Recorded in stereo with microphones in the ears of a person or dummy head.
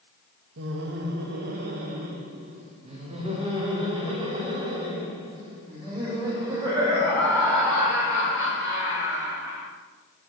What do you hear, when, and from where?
0.6 s laughter: 70° right (ahead or behind), 1.4 m; by 9.7 s 25° right (ahead or behind), 6.5 m